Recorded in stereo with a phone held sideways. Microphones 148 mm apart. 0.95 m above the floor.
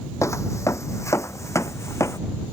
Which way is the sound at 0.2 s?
20° left (ahead or behind).